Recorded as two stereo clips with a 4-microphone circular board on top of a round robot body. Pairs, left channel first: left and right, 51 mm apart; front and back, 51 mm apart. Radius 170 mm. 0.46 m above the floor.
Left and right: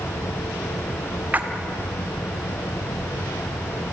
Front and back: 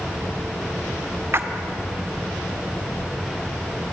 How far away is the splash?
About 1.6 m.